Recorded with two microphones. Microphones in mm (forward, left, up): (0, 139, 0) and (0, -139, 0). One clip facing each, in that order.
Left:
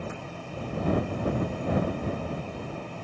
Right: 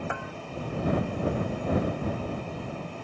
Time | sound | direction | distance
0.1 | a bell | 80° right | ?